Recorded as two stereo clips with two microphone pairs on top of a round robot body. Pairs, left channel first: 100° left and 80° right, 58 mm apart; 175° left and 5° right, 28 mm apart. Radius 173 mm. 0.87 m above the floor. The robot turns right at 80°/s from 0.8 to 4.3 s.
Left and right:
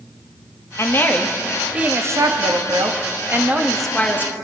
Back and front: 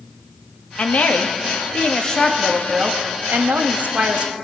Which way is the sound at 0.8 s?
135° left.